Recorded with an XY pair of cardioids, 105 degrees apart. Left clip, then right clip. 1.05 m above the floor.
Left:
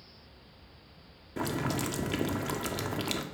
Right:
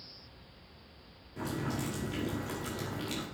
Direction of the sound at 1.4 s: 65° left.